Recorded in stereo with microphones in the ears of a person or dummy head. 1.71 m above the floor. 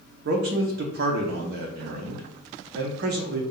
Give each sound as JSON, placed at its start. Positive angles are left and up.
{"t": 0.2, "sound": "a man speaking", "side_deg": -60, "distance_m": 0.8}